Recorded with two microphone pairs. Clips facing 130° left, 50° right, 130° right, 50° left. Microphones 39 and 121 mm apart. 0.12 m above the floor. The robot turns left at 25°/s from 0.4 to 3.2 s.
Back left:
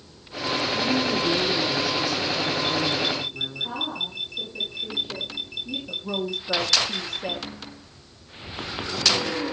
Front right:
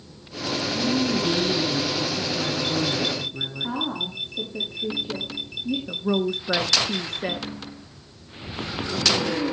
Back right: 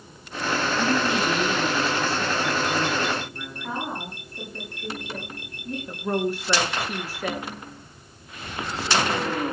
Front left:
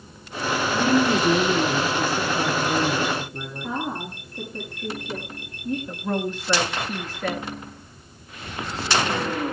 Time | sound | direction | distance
0.7 | a woman speaking | 60° left | 2.5 m
3.6 | a woman speaking | 35° right | 8 m
5.9 | a woman speaking | 50° right | 1.7 m